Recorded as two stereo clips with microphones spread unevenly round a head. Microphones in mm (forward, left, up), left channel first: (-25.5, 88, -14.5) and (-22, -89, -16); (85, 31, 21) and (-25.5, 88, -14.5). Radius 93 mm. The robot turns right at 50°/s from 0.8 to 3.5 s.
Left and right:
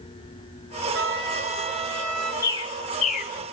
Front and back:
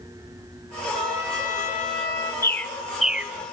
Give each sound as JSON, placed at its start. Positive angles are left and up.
{"t": 0.9, "sound": "a trumpet", "azimuth_deg": -65, "distance_m": 4.5}
{"t": 2.4, "sound": "a bird", "azimuth_deg": 20, "distance_m": 0.7}